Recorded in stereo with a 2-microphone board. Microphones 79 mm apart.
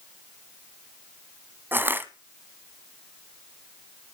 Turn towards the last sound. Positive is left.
turn(degrees=-25)  # may be behind; listen again after turning